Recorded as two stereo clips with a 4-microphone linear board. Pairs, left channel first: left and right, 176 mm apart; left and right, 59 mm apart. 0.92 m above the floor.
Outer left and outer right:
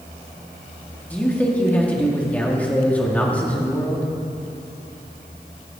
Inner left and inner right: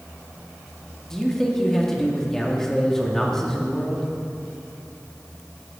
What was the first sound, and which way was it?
A man speaking, 10° left (ahead or behind).